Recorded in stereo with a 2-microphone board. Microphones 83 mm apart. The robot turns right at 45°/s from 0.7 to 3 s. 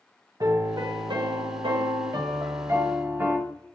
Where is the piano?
125° right, 0.5 m; by 3.4 s 25° right, 0.5 m.